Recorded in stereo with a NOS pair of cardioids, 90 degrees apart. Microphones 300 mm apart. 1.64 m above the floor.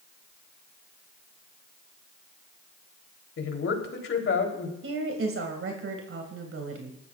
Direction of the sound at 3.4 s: 45° left.